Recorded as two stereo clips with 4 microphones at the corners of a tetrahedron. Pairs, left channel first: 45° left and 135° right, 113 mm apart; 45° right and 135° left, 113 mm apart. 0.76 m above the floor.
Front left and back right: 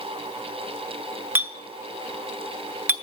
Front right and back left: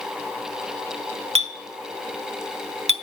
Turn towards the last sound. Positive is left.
turn(degrees=150)